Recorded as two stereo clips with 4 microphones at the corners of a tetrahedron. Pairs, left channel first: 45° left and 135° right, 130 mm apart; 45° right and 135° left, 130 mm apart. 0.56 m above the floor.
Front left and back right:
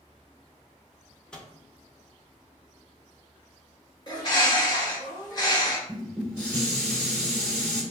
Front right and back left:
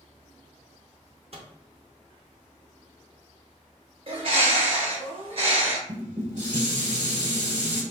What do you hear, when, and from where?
1.3 s a microwave: 125° left, 0.6 m
4.1 s a bird: 100° left, 0.9 m
5.9 s dishes clattering: 125° left, 1.1 m